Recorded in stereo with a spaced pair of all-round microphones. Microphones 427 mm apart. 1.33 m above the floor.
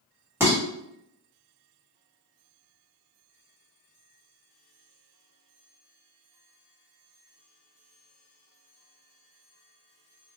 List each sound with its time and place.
0.4 s dishes clattering: 5° right (ahead or behind), 1.4 m